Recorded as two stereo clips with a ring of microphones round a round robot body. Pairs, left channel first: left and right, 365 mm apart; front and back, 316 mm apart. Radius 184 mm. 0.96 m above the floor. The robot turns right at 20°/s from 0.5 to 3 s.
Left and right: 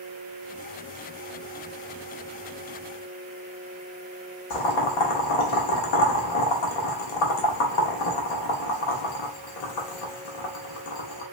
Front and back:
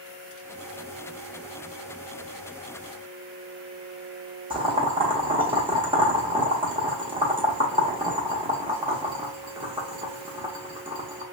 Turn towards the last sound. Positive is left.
turn(degrees=105)